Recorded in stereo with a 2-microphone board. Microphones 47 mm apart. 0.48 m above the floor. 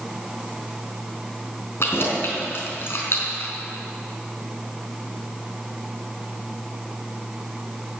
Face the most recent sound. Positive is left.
turn(degrees=55)  # may be behind; listen again after turning